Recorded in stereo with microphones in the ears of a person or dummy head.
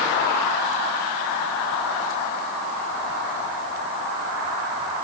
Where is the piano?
No piano in this recording.